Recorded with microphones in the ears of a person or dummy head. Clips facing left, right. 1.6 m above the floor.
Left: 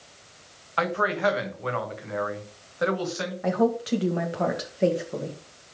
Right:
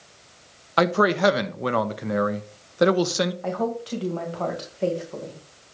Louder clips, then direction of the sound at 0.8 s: Right 6 dB; 65° right (ahead or behind).